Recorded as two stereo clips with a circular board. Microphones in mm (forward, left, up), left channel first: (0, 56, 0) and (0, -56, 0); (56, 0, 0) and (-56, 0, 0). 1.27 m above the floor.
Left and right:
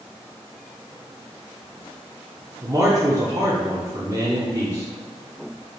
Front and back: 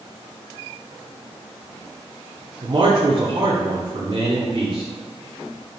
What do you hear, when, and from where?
2.6 s a man speaking: 140° right, 0.6 m